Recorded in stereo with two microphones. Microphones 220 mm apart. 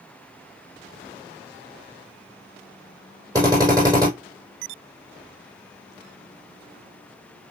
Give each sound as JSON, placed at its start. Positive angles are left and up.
{"t": 3.4, "sound": "a drill", "side_deg": -15, "distance_m": 4.0}